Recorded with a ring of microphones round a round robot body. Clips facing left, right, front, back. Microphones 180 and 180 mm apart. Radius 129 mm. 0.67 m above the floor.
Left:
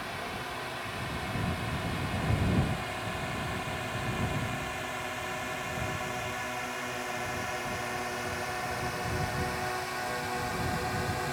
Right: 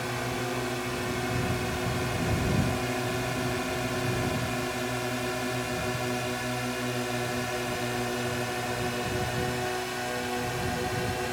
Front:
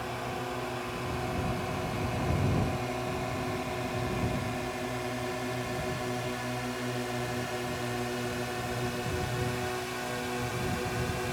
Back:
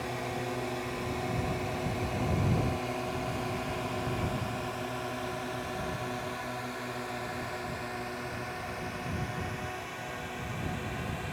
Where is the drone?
100° right; by 11.3 s 35° right.